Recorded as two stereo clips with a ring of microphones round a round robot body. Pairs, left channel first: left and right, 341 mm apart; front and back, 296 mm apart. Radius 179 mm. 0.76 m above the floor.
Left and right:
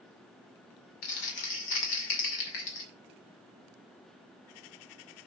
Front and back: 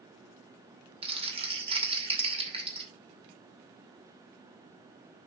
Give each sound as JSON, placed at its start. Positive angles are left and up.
{"t": 1.0, "sound": "crumpling", "azimuth_deg": 110, "distance_m": 2.5}